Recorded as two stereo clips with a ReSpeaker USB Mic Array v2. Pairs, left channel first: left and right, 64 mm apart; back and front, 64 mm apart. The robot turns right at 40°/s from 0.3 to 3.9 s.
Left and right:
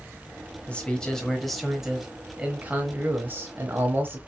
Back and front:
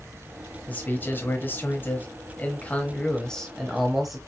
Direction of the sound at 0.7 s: 145° left.